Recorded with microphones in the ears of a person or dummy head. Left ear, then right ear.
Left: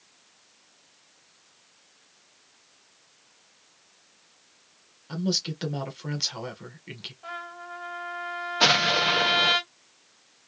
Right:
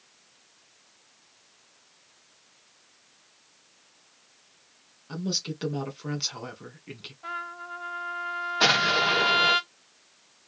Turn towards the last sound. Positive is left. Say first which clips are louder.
# left 1 dB
turn(degrees=5)  # may be behind; listen again after turning